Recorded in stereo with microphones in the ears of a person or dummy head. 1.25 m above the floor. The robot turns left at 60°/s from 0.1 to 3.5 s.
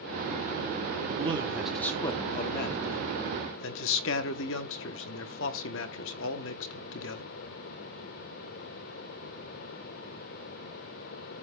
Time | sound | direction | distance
1.1 | a man speaking | 145° right | 0.9 m